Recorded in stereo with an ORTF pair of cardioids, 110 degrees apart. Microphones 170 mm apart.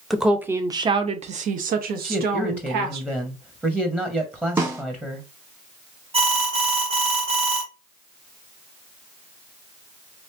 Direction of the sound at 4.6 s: 20° right.